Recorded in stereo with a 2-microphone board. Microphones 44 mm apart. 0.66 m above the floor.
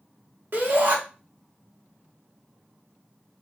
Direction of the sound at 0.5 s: 60° right (ahead or behind).